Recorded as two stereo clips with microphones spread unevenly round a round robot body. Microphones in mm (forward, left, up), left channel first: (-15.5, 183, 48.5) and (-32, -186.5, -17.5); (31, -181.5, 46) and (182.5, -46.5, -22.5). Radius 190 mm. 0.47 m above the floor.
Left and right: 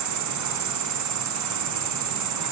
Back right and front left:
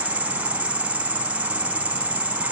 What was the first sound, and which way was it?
An insect, 45° right.